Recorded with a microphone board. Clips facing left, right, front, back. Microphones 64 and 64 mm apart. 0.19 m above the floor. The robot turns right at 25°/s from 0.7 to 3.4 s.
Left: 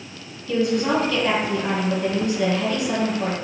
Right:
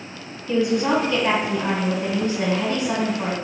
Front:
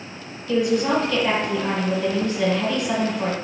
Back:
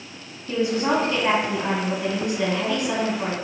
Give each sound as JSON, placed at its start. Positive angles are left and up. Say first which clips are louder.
{"t": 0.5, "sound": "a woman speaking", "louder": "right 1 dB, front 2 dB", "azimuth_deg": -140, "distance_m": 1.4}